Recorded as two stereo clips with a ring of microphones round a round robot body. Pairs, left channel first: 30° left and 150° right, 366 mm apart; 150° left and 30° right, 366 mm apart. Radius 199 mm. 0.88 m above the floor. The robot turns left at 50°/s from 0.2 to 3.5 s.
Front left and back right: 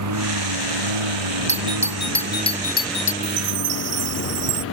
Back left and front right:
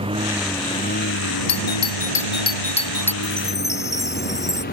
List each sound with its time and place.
0.0 s a lawn mower: 105° right; by 4.7 s 85° left
1.5 s a doorbell: 150° left; by 3.1 s 65° left
3.2 s a chime: 115° right; by 4.6 s 130° right